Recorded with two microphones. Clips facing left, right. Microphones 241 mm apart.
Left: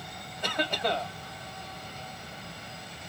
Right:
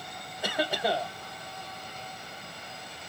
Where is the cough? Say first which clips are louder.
Right 1 dB; 5° right (ahead or behind), 0.9 m.